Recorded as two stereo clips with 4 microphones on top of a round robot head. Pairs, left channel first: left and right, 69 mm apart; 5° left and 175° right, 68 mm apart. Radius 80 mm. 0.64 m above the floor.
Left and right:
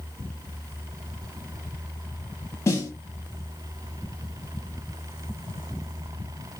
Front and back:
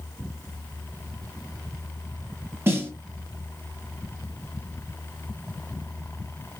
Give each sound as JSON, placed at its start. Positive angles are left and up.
{"t": 2.7, "sound": "a snare drum", "azimuth_deg": 130, "distance_m": 1.3}